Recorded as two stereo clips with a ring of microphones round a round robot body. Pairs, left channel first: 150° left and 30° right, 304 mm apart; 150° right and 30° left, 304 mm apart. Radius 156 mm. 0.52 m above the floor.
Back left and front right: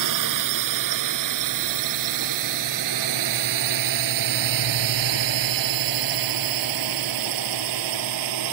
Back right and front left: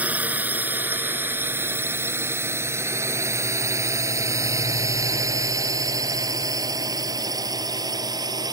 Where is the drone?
55° right; by 8.5 s 50° right.